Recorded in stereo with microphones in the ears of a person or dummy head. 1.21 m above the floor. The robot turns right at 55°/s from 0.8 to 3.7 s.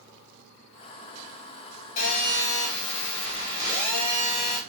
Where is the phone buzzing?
40° left, 0.9 m; by 4.6 s 135° left, 0.9 m.